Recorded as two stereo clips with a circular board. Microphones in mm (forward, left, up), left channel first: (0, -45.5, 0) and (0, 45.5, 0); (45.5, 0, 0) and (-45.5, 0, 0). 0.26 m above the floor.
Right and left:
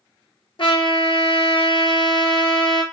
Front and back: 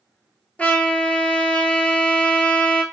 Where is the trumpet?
75° right, 0.7 m.